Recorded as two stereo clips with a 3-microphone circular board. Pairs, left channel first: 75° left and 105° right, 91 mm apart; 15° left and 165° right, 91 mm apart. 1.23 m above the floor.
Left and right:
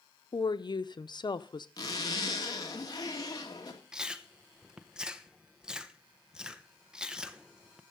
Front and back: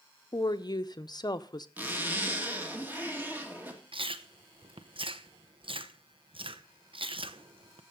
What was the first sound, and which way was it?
A woman speaking, 50° left.